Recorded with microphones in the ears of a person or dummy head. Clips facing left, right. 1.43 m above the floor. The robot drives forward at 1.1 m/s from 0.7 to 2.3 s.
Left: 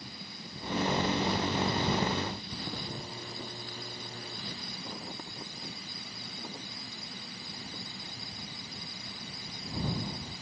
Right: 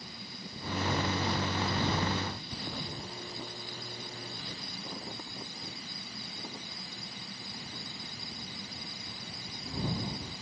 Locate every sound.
Only background noise.